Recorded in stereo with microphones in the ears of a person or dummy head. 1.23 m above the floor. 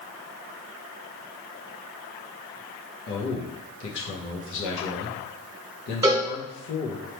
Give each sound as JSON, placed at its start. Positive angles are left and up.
{"t": 3.1, "sound": "a man speaking", "side_deg": 65, "distance_m": 0.9}
{"t": 6.0, "sound": "a cowbell", "side_deg": -20, "distance_m": 1.3}